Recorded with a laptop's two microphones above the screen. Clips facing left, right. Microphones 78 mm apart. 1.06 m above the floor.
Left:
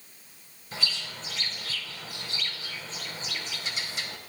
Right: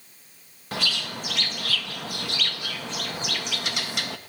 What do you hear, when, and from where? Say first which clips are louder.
0.7 s a bird: right 6 dB; 70° right (ahead or behind), 0.8 m